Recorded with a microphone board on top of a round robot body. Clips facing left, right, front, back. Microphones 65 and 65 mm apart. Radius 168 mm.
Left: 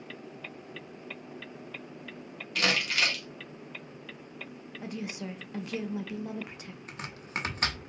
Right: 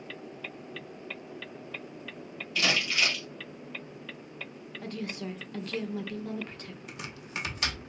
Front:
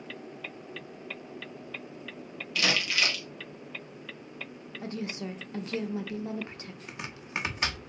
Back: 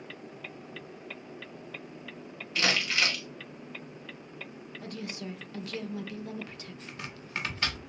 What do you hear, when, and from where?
2.5 s crumpling: 125° left, 1.2 m
4.8 s a woman speaking: 25° left, 0.8 m
6.9 s chopping: 65° left, 0.9 m